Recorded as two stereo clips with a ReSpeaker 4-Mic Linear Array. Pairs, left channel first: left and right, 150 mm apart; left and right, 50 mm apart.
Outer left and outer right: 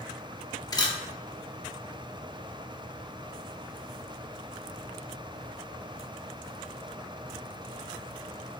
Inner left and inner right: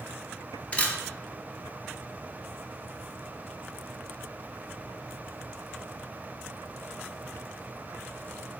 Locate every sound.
0.7 s a camera shutter: 25° left (ahead or behind), 0.5 m